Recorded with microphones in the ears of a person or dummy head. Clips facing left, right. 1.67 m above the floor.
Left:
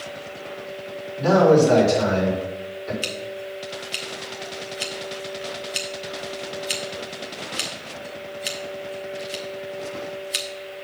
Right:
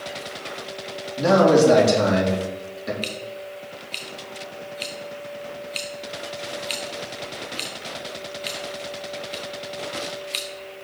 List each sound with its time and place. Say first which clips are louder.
1.2 s a man speaking: even; 70° right (ahead or behind), 3.5 m
3.0 s scissors: left 2 dB; 5° left (ahead or behind), 0.5 m